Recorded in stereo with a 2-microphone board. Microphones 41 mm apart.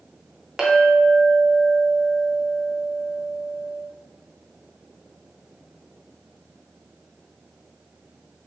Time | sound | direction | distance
0.6 | a clink | 15° right (ahead or behind) | 0.6 m